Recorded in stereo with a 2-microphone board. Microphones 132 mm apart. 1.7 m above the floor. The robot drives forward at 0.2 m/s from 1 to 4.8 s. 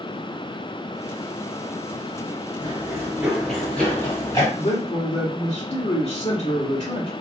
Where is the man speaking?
50° left (ahead or behind), 1.3 m; by 7.1 s 45° left (ahead or behind), 1.3 m.